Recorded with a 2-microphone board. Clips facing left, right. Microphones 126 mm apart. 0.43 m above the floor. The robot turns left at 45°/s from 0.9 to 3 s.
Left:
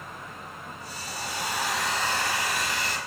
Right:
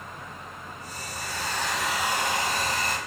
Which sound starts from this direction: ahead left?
A hair dryer, at 1.1 s.